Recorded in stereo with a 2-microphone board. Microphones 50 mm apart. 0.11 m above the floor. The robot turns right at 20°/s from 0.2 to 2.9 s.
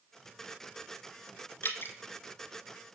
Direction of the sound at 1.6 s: 50° left (ahead or behind).